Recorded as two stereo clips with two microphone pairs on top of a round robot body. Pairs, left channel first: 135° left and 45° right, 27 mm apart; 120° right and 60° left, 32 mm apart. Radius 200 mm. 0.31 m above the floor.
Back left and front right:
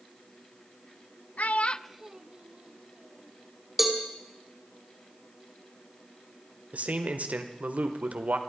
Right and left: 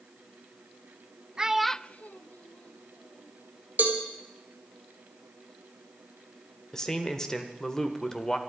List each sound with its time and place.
1.4 s a child speaking: 120° left, 0.7 m; by 3.3 s 85° right, 2 m
3.8 s a cowbell: 35° left, 2.5 m
6.7 s a man speaking: 55° right, 1.6 m